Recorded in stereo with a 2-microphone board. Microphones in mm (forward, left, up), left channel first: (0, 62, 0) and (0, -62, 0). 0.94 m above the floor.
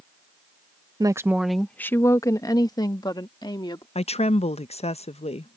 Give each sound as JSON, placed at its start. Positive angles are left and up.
{"t": 1.0, "sound": "a woman speaking", "side_deg": -35}
{"t": 4.0, "sound": "a woman speaking", "side_deg": 55}